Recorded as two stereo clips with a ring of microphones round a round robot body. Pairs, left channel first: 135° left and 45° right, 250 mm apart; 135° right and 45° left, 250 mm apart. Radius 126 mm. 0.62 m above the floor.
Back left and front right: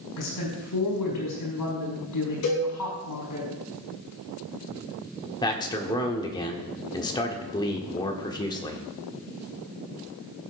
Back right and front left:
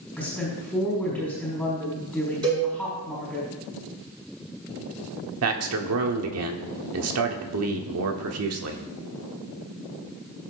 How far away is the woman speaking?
About 5 m.